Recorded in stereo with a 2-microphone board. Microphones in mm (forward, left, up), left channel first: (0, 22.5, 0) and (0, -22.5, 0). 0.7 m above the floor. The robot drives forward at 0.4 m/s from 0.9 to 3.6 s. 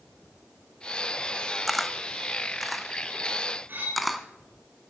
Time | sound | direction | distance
1.7 | a camera shutter | centre (ahead or behind) | 0.6 m
3.7 | cutlery clinking | 40° right (ahead or behind) | 4.5 m